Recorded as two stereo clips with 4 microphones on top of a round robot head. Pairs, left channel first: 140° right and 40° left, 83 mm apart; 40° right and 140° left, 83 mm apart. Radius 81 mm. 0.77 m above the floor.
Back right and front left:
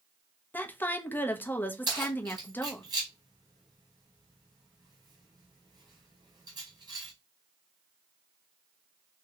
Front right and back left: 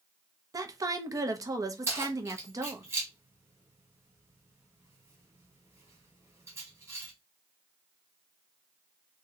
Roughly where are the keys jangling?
Left.